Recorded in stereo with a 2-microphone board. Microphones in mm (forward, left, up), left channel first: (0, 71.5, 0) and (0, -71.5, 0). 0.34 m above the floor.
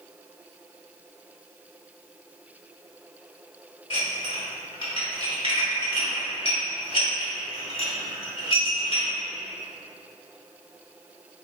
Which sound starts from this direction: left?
Dishes clattering, at 3.9 s.